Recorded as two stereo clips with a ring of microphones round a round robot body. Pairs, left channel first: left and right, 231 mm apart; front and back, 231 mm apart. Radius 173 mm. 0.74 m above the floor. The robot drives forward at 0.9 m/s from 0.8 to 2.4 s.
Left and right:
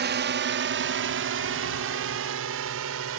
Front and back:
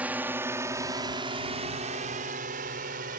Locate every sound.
0.0 s a drone: 100° right; by 3.2 s 120° right